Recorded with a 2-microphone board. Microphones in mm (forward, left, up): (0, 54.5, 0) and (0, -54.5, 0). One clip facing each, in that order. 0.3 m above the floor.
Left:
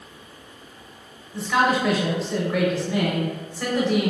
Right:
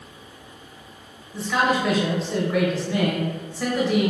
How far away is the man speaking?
About 0.9 m.